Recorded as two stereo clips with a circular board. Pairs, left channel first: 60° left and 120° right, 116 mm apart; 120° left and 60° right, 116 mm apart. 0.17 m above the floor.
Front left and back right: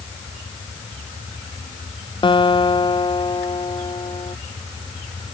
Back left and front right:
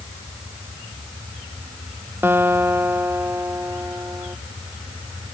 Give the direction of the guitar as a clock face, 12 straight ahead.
12 o'clock.